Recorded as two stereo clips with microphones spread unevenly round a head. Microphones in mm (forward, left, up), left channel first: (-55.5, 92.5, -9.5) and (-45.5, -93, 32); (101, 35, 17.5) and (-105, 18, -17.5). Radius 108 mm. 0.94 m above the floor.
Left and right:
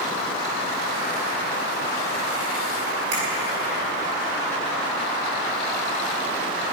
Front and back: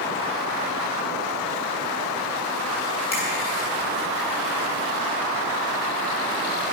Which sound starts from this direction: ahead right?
A finger snap, at 3.1 s.